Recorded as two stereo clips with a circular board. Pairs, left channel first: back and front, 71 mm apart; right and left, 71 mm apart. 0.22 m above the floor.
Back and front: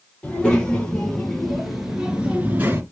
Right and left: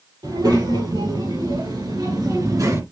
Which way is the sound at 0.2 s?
105° left.